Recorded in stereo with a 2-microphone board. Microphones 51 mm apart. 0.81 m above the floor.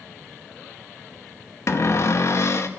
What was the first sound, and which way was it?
A cupboard door, 55° left (ahead or behind).